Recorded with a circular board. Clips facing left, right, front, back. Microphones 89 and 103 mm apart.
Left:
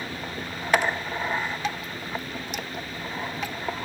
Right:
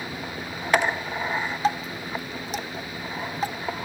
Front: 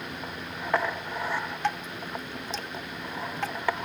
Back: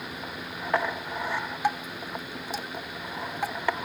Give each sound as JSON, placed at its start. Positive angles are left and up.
{"t": 1.6, "sound": "dripping", "azimuth_deg": -110}